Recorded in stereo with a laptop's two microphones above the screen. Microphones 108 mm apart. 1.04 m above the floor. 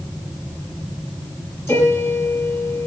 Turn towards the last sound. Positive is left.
turn(degrees=25)  # may be behind; listen again after turning